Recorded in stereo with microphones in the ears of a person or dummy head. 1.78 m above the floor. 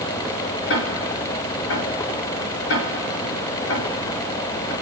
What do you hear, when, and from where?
0.7 s ticking: 75° left (ahead or behind), 6 m